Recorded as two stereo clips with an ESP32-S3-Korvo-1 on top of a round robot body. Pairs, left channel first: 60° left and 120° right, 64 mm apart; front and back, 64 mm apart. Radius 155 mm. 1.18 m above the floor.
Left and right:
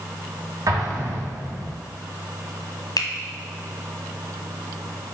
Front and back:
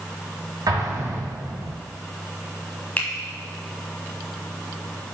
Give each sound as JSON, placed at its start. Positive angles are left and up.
{"t": 0.7, "sound": "an explosion", "azimuth_deg": -155, "distance_m": 2.0}
{"t": 3.0, "sound": "a finger snap", "azimuth_deg": 65, "distance_m": 1.3}